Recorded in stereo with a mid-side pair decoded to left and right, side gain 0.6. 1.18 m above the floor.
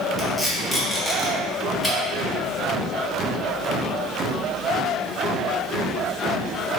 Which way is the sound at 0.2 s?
5° right.